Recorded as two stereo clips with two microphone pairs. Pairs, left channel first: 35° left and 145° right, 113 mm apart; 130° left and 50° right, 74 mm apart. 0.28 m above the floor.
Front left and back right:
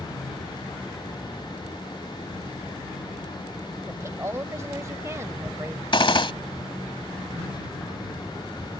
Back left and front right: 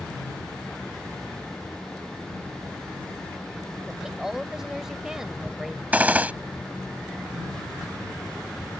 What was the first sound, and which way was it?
A woman speaking, 130° right.